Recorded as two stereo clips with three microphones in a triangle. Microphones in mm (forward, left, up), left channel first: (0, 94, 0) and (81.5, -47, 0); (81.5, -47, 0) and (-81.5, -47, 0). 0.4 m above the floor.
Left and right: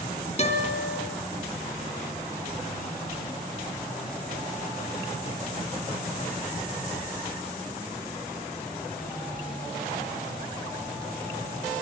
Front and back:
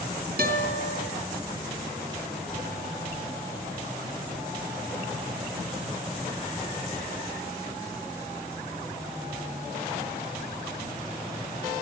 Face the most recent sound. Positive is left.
turn(degrees=165)